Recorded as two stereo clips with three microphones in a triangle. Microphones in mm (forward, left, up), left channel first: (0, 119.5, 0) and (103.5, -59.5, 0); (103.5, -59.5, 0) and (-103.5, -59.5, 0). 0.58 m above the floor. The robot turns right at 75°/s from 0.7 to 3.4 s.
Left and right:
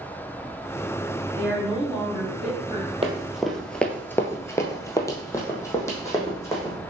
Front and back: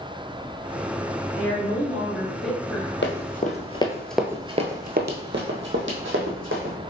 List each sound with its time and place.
1.4 s a woman speaking: 175° right, 1.4 m; by 2.9 s 55° right, 1.4 m
3.0 s running footsteps: straight ahead, 1.0 m; by 6.8 s 165° right, 1.8 m